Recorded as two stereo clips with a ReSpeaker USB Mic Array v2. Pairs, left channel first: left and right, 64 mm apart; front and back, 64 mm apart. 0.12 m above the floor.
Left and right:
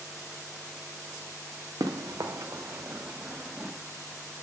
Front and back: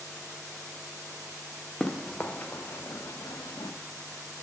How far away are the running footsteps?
About 1.0 m.